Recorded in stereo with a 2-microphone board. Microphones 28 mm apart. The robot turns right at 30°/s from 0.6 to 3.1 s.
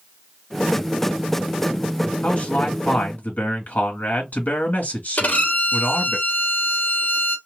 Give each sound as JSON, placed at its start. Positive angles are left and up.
{"t": 2.2, "sound": "a man speaking", "side_deg": 40, "distance_m": 1.8}
{"t": 5.2, "sound": "a violin", "side_deg": 65, "distance_m": 1.2}